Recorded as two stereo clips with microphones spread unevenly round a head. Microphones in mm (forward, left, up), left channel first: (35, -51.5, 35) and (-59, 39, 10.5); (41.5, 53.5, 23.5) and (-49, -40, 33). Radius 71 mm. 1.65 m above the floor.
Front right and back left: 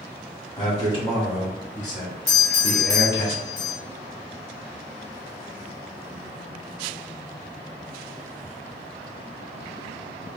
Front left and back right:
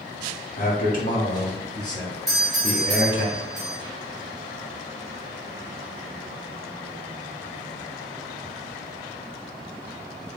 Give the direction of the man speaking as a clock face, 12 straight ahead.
12 o'clock.